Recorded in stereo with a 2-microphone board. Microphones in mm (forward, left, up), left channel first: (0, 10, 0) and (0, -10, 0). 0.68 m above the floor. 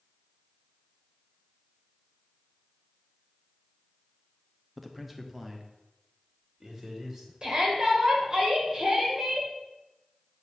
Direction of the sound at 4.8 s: Centre (ahead or behind).